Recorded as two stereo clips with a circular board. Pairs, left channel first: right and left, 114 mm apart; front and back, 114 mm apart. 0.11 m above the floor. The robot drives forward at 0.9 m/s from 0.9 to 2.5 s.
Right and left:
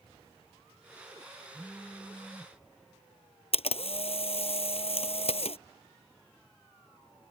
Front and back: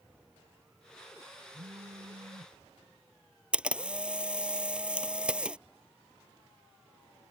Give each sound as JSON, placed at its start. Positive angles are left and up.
{"t": 1.5, "sound": "a phone buzzing", "azimuth_deg": 170}
{"t": 3.5, "sound": "a camera shutter", "azimuth_deg": -100}